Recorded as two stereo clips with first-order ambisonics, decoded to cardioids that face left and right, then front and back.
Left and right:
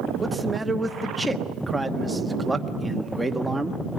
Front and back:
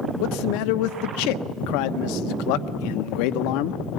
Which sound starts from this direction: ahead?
A man speaking, at 0.2 s.